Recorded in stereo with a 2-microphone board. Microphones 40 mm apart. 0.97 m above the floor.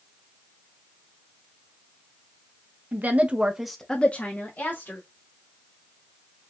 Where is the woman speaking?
45° right (ahead or behind), 1.1 m; by 5.0 s 65° left (ahead or behind), 1.4 m.